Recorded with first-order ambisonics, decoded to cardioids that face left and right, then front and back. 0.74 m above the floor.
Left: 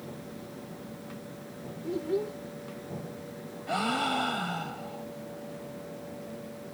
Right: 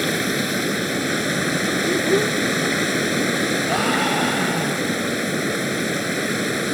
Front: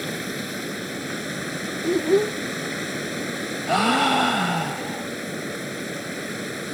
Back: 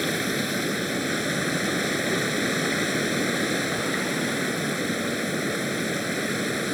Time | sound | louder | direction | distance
0.0 | running water | right 22 dB, back 4 dB | 105° right | ?
1.8 | a child speaking | right 9 dB, front 4 dB | 35° right | ?
3.7 | a gasp | right 4 dB, front 7 dB | 20° right | ?